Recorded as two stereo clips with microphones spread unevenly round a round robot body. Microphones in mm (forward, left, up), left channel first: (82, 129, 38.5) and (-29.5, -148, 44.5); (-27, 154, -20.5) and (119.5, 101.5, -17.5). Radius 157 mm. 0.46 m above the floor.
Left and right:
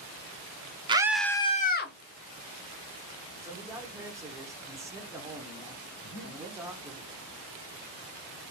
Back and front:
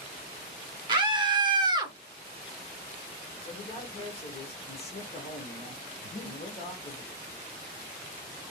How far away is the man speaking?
About 1.0 m.